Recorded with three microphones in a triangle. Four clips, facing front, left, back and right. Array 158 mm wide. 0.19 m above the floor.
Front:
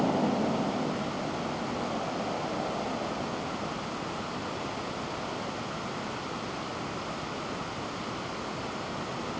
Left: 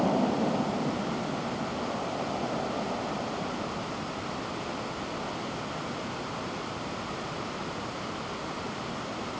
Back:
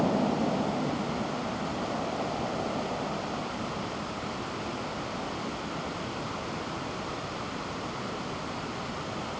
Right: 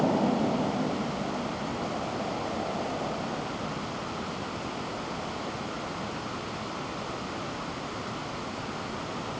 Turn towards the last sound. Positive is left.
No sound to turn to.